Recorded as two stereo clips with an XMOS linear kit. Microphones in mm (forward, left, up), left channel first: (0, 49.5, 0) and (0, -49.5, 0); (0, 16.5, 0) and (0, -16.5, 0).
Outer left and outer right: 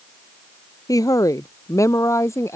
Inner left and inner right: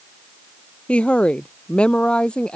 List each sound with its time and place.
0.9 s a woman speaking: 35° left (ahead or behind); by 2.6 s 30° left (ahead or behind)